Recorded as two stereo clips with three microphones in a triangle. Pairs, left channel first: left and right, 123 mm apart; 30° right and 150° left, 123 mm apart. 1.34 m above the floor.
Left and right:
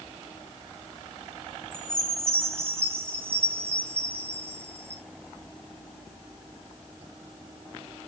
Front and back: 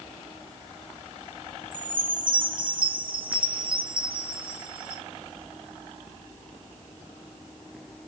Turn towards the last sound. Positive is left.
turn(degrees=-160)